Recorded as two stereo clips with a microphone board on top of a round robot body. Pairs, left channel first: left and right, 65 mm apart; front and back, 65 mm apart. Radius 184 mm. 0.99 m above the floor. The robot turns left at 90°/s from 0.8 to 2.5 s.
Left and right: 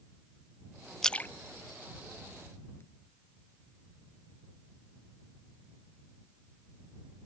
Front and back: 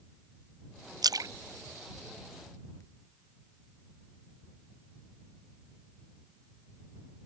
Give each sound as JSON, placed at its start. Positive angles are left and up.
{"t": 1.0, "sound": "a splash", "azimuth_deg": 170}